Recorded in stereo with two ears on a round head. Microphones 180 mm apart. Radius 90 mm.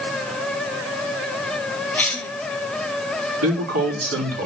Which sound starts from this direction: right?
A man speaking, at 3.4 s.